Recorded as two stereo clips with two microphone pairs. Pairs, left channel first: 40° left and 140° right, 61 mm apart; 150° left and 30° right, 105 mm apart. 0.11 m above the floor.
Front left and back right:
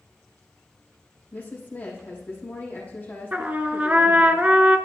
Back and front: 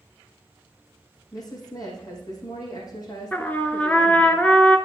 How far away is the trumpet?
About 0.7 m.